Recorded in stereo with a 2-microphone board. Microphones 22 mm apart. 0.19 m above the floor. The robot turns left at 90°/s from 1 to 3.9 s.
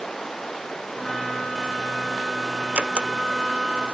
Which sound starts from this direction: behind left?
Running water, at 0.0 s.